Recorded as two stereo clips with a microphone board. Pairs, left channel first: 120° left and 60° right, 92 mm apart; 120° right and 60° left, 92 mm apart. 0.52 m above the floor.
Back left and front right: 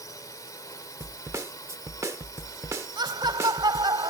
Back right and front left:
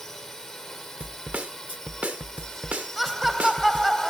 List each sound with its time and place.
0.0 s a drone: 155° left
1.0 s a snare drum: 10° right
3.0 s laughter: 30° right